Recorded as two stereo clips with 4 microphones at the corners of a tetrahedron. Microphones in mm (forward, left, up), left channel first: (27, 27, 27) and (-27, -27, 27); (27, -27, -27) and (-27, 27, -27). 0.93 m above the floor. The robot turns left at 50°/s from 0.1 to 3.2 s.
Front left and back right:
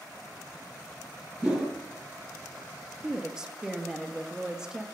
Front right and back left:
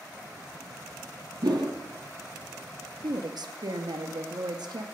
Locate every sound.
1.4 s a whoosh: 150° left, 3 m; by 1.7 s 135° left, 3 m
3.0 s a woman speaking: 150° left, 1.1 m; by 4.8 s 145° left, 1.1 m